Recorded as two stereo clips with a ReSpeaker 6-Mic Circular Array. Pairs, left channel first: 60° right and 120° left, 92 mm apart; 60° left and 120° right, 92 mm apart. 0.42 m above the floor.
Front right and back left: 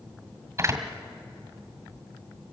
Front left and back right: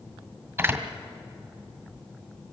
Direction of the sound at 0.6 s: Straight behind.